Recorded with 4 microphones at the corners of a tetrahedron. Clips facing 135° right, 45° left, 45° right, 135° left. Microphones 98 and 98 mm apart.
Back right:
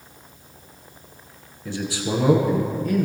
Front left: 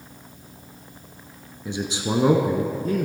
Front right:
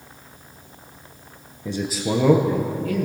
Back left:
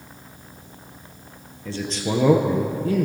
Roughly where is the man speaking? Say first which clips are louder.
Even, front right 2 dB; ahead.